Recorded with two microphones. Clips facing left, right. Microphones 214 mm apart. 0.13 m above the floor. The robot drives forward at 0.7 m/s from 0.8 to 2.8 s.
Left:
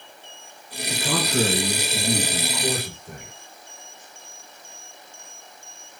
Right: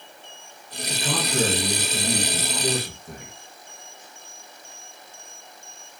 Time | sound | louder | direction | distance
0.9 | a man speaking | left 3 dB | 5° left (ahead or behind) | 3.5 m